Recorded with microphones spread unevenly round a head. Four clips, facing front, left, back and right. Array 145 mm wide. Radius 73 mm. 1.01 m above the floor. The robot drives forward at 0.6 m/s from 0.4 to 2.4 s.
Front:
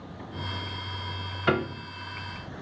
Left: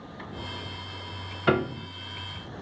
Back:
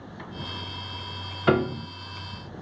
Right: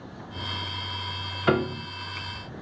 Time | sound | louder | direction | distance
1.5 | a piano | right 1 dB, back 4 dB | 150° right | 0.5 m